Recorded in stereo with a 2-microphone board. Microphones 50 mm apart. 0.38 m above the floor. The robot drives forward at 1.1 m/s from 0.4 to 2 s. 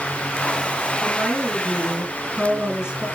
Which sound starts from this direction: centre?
A woman speaking, at 1.0 s.